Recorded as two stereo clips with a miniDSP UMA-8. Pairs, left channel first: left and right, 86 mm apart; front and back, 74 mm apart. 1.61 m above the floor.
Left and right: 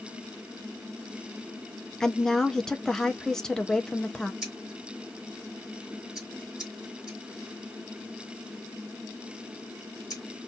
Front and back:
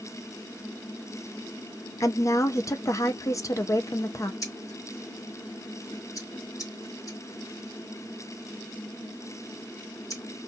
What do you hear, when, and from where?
2.0 s a woman speaking: 10° left, 0.6 m
4.4 s scissors: 10° right, 2 m